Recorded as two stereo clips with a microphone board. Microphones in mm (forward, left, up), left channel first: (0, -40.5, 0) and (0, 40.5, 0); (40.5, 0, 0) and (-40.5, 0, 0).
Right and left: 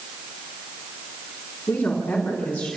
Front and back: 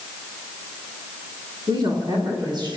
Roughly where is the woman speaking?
Behind right.